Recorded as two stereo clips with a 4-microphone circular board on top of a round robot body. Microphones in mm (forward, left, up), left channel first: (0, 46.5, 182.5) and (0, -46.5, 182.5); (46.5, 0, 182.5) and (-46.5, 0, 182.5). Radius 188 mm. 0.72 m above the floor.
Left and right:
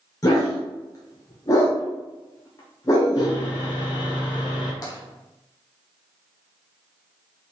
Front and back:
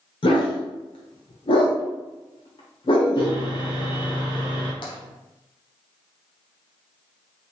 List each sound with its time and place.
0.2 s a dog barking: 35° left, 0.8 m
3.2 s sawing: 45° left, 1.3 m
4.8 s tapping: 40° left, 0.6 m